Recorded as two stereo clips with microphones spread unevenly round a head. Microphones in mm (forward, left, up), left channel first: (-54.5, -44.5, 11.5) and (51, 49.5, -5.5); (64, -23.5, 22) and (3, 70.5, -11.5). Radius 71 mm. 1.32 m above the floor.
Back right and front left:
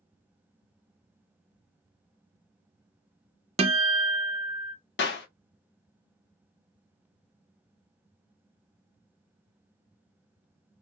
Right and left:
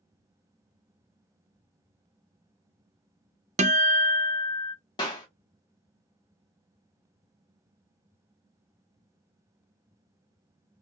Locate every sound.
3.6 s a guitar: 95° left, 0.6 m
5.0 s a clap: 120° right, 1.0 m